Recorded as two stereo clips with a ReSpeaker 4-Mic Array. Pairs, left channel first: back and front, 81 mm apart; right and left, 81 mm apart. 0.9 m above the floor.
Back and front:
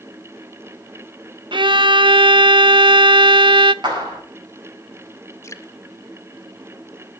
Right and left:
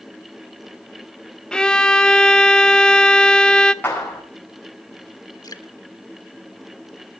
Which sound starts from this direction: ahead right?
A clap, at 3.8 s.